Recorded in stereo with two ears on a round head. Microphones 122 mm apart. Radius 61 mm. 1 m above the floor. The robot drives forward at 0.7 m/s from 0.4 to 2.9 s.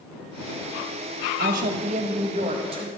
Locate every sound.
1.4 s a woman speaking: 70° right (ahead or behind), 0.9 m; by 2.9 s 35° right (ahead or behind), 1.5 m